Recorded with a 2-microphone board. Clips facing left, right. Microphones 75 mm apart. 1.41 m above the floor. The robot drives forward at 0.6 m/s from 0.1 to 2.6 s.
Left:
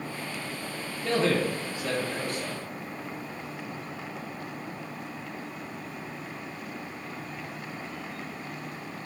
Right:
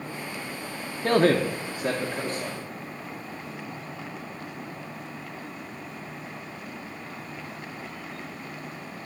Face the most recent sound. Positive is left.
turn(degrees=-25)  # may be behind; listen again after turning